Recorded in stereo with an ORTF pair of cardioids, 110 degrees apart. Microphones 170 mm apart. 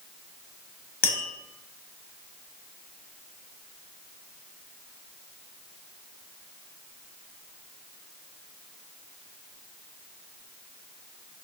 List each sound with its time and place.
1.0 s tapping: 65° left, 1.0 m